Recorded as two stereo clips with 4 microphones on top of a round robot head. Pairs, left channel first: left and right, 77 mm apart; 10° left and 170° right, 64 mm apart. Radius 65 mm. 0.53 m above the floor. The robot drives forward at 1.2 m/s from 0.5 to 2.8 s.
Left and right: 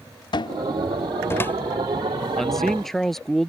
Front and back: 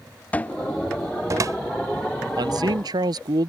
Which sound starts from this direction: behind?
A man speaking, at 2.4 s.